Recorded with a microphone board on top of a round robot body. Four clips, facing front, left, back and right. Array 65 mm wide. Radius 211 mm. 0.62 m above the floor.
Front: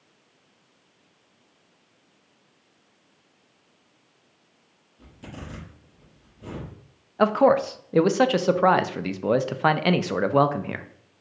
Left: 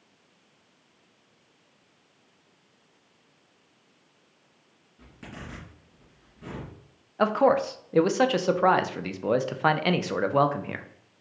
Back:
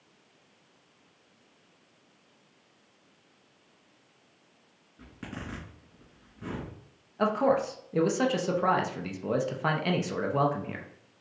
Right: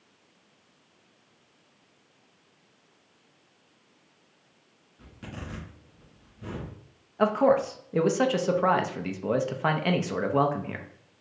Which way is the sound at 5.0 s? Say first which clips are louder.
Right 1 dB, even; 175° left.